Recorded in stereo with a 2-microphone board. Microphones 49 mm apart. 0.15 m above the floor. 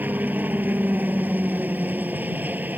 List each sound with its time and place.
0.0 s a helicopter: 35° right (ahead or behind)